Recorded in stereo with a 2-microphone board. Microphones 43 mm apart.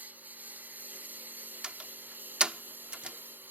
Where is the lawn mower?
40° right (ahead or behind); by 3.5 s 50° right (ahead or behind).